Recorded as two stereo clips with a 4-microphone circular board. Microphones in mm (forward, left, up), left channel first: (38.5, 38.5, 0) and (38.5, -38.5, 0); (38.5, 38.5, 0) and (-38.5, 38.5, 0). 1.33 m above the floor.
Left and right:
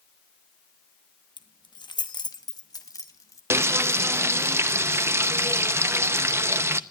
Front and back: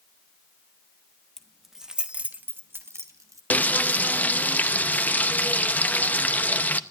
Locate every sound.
1.4 s keys jangling: 85° left, 1.3 m; by 3.4 s 135° left, 1.6 m
3.5 s frying: 55° right, 0.6 m